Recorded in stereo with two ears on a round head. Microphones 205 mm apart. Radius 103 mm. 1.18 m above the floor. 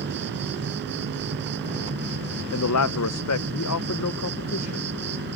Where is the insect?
50° right (ahead or behind).